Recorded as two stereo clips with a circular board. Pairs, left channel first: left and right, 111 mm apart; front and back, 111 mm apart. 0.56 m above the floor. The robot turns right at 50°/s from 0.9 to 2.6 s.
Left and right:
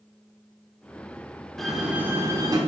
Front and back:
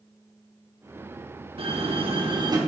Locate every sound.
1.6 s a door slam: 175° left, 0.9 m; by 2.6 s 135° right, 0.9 m